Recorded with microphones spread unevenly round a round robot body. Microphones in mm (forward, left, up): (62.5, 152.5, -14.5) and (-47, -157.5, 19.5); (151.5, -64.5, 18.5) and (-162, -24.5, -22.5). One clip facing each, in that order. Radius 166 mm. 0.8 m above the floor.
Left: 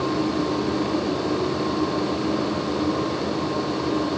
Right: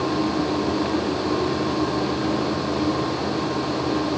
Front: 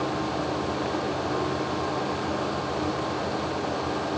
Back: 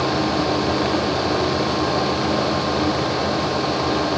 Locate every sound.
Only background noise.